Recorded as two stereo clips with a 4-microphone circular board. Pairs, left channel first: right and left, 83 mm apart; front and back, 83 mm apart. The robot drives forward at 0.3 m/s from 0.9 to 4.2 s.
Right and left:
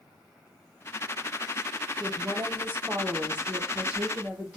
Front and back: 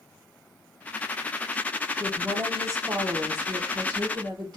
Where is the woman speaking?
135° left, 0.6 m; by 4.6 s 165° left, 1.1 m.